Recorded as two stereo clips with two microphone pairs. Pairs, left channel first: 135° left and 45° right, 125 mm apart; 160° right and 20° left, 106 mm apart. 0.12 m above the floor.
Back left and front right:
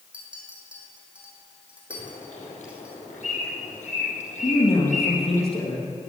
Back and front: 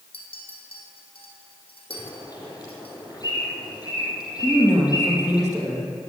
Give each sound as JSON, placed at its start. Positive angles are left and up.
{"t": 0.1, "sound": "a clink", "azimuth_deg": -125, "distance_m": 3.5}
{"t": 1.9, "sound": "a bird", "azimuth_deg": 150, "distance_m": 5.0}
{"t": 4.4, "sound": "a man speaking", "azimuth_deg": 105, "distance_m": 3.5}